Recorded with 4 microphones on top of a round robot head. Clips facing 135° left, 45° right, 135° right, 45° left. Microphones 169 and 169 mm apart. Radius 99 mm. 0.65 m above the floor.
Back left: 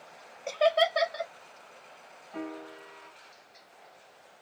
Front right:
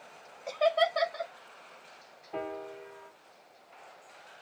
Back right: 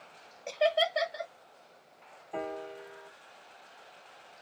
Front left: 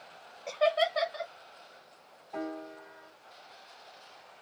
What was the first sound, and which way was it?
Laughter, straight behind.